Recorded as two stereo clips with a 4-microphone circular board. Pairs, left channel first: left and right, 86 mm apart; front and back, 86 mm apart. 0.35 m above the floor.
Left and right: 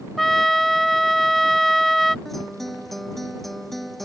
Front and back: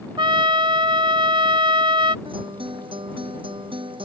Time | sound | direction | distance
0.2 | a trumpet | straight behind | ?
2.2 | a guitar | straight behind | ?